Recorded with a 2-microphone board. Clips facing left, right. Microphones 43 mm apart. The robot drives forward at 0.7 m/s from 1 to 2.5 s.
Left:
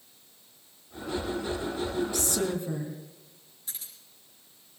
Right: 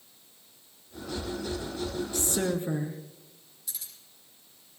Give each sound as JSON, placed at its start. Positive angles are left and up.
{"t": 2.1, "sound": "a woman speaking", "side_deg": -35, "distance_m": 3.0}
{"t": 3.7, "sound": "keys jangling", "side_deg": 40, "distance_m": 6.0}